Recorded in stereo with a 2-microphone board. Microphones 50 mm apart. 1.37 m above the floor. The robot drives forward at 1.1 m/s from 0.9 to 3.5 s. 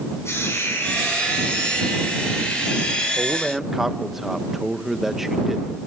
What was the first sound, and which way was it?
A hiss, 75° left (ahead or behind).